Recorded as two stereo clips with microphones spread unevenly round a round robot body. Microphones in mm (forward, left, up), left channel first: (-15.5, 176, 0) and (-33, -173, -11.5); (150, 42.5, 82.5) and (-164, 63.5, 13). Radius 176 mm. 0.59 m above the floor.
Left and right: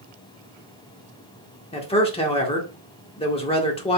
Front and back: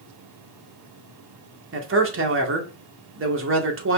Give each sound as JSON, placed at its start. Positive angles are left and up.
{"t": 1.7, "sound": "a man speaking", "azimuth_deg": 160, "distance_m": 1.9}